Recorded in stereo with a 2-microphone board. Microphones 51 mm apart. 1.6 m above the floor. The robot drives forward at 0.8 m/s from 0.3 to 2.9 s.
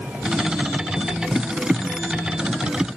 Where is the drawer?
No drawer in this recording.